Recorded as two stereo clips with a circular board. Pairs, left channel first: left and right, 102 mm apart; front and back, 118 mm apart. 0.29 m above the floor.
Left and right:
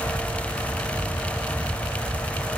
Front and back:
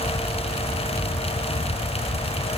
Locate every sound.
Only background noise.